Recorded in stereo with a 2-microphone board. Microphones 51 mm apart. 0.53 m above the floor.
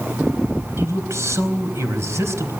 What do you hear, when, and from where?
0.8 s a man speaking: 60° right (ahead or behind), 4 m